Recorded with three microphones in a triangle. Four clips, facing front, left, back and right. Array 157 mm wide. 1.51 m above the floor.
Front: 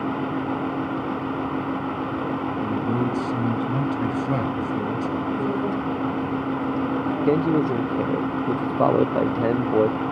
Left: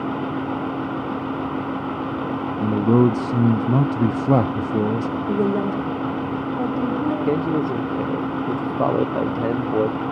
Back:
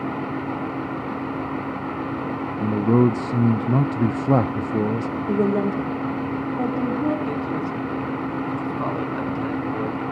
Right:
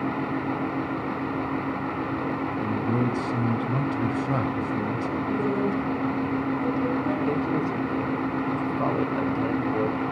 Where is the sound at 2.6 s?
115° left, 0.6 m.